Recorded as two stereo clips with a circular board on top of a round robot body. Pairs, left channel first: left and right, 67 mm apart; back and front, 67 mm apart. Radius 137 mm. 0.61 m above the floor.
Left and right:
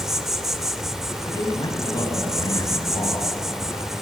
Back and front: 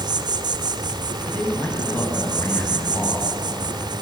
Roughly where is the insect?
Ahead.